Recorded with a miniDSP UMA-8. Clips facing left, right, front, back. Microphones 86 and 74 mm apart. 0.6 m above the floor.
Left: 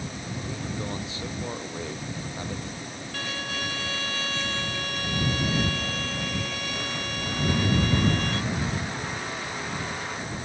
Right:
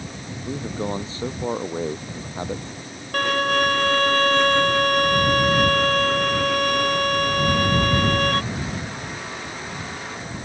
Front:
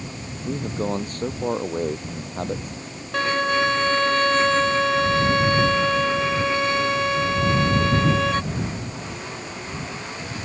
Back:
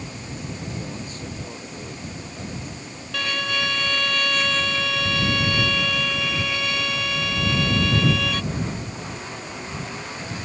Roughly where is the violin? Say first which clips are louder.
Right 14 dB, front 6 dB; ahead right.